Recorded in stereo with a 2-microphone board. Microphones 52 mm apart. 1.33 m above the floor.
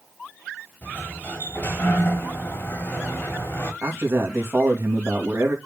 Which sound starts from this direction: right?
A man speaking, at 3.8 s.